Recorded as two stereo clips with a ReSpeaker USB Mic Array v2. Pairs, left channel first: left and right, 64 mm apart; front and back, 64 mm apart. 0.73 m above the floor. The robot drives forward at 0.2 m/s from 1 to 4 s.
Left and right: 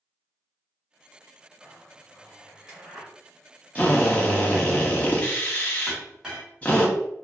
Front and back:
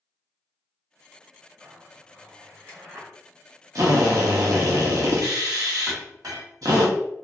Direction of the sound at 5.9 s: 170° right.